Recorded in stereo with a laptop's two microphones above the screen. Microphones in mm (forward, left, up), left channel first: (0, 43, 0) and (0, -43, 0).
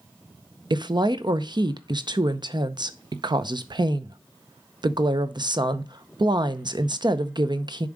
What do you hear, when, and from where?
0.7 s a woman speaking: 55° right (ahead or behind), 0.7 m